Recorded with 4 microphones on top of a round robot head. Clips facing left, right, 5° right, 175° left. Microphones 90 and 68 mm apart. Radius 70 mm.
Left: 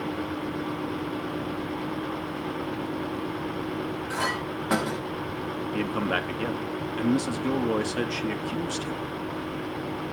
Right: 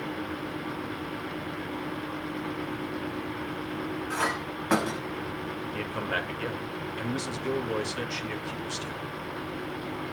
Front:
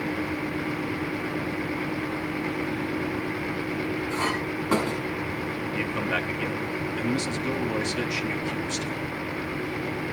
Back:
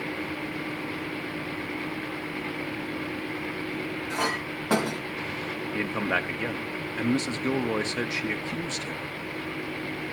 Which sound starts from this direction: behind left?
A man speaking, at 5.7 s.